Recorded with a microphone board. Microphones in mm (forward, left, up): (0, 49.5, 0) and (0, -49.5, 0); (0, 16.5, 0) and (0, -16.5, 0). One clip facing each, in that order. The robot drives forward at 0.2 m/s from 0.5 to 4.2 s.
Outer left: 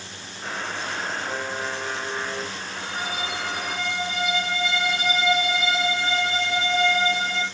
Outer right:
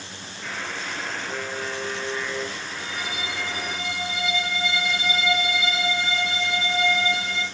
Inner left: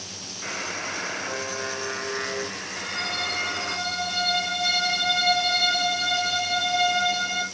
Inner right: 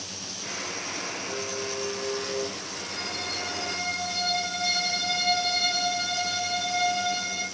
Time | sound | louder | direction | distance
0.4 | a buzzer | outer left 2 dB, inner left 4 dB | 55° left (ahead or behind) | 3.5 m
2.8 | a violin | outer left 4 dB, inner left 7 dB | 55° left (ahead or behind) | 2.5 m